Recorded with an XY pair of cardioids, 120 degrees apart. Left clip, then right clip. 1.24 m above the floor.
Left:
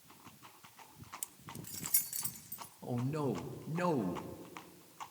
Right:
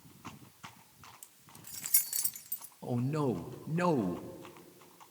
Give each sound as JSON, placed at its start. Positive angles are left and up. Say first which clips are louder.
{"t": 1.2, "sound": "keys jangling", "louder": "left 6 dB", "azimuth_deg": 55, "distance_m": 0.7}
{"t": 2.8, "sound": "a man speaking", "louder": "right 4 dB", "azimuth_deg": -20, "distance_m": 1.1}